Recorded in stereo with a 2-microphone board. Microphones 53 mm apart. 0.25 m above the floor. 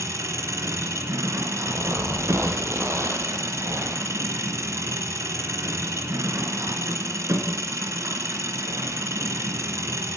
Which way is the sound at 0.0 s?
65° right (ahead or behind).